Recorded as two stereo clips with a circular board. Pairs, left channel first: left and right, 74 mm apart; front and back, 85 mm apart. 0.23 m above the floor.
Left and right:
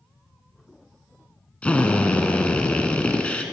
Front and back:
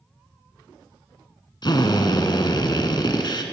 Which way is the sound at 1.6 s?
20° left.